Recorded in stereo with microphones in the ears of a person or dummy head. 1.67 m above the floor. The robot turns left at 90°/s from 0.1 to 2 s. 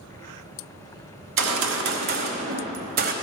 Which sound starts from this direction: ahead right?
A gunshot, at 1.2 s.